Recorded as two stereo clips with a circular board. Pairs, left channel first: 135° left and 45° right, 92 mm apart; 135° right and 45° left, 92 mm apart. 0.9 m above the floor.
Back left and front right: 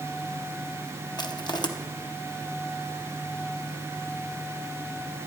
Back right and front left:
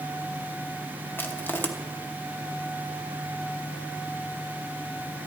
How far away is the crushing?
About 0.8 m.